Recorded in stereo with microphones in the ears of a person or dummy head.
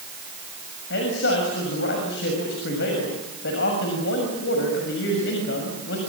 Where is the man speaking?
70° left (ahead or behind), 6.5 m.